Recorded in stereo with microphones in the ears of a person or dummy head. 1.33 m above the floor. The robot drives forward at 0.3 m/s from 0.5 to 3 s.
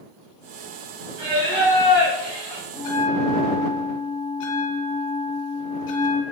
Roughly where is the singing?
Right.